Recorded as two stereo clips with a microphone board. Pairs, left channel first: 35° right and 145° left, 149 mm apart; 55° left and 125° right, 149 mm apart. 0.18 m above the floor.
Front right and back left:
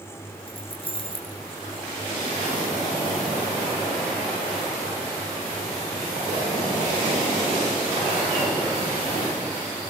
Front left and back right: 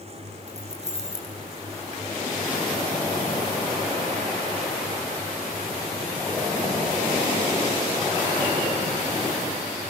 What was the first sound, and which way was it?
Keys jangling, 85° right.